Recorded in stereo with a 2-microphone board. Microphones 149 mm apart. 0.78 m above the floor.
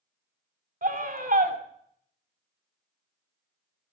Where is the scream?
70° right (ahead or behind), 2.5 m.